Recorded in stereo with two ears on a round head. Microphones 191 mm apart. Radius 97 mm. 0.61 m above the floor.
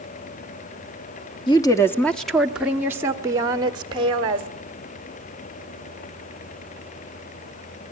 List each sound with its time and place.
1.5 s a woman speaking: 20° left (ahead or behind), 1.1 m; by 4.5 s 25° right (ahead or behind), 2 m